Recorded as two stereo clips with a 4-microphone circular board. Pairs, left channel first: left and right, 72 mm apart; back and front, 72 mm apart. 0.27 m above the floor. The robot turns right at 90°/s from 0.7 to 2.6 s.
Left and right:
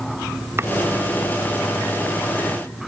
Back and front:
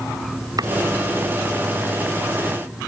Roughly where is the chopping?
Ahead right.